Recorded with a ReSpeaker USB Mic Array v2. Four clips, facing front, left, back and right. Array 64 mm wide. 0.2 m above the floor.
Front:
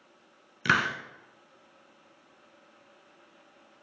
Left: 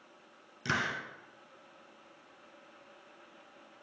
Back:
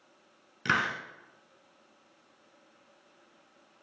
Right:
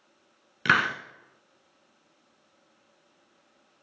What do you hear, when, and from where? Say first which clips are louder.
0.7 s a hiss: right 10 dB, front 3 dB; 75° right, 0.7 m